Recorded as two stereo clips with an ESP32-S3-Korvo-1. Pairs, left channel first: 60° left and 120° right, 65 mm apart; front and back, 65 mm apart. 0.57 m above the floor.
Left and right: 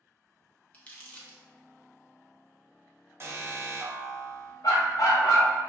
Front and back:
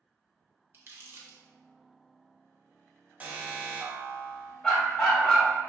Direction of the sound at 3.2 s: 130° right.